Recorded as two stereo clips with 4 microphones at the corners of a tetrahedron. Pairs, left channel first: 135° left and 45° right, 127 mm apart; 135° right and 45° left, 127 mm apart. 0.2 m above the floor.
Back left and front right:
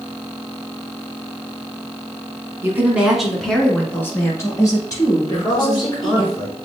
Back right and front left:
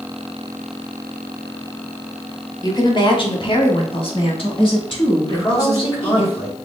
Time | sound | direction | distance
2.6 | a woman speaking | 100° right | 1.3 m
5.2 | a man speaking | 175° left | 2.5 m